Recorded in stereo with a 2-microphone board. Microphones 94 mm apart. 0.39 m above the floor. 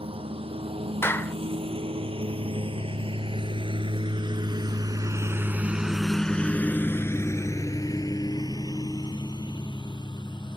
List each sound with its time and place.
0.0 s a lawn mower: 85° right; by 10.6 s 55° left (ahead or behind)
1.0 s a clap: 25° left (ahead or behind)